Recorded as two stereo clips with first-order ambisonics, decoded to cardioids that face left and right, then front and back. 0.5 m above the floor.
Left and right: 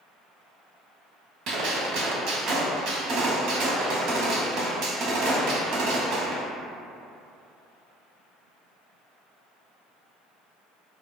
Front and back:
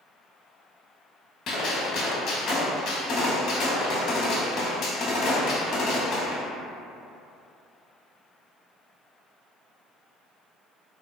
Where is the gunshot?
55° right, 0.6 m.